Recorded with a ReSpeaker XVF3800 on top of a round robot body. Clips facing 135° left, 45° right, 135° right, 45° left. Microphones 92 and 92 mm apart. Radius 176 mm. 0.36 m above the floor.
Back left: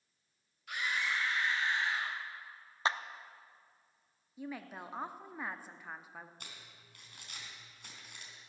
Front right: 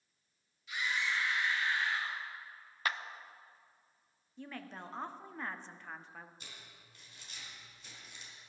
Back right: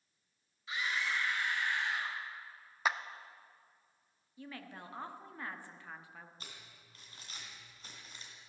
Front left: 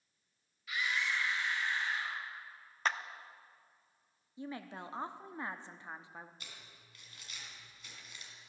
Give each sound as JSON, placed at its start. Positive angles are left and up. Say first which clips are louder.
{"t": 0.7, "sound": "a scream", "louder": "even, even", "azimuth_deg": 165, "distance_m": 2.5}
{"t": 2.9, "sound": "a clap", "louder": "back left 3 dB, back right 1 dB", "azimuth_deg": 150, "distance_m": 1.0}
{"t": 4.4, "sound": "a woman speaking", "louder": "back left 3 dB, front left 4 dB", "azimuth_deg": 65, "distance_m": 1.2}
{"t": 6.4, "sound": "crumpling", "louder": "back left 1 dB, back right 1 dB", "azimuth_deg": 170, "distance_m": 3.0}